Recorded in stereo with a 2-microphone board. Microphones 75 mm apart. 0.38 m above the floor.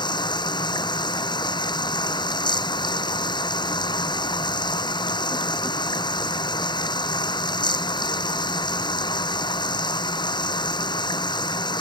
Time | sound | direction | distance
0.0 | running water | 75° left (ahead or behind) | ?